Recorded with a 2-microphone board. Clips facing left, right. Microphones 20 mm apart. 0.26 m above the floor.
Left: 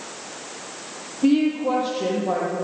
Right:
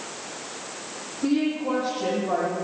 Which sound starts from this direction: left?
A woman speaking, at 1.2 s.